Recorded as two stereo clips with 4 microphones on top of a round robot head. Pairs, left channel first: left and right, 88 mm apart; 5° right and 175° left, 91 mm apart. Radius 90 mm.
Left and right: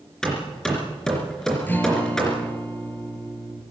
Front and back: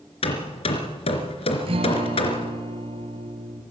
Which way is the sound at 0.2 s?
5° left.